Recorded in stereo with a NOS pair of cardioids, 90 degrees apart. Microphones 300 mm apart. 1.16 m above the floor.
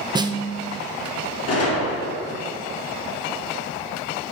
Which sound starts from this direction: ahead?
A snare drum, at 0.1 s.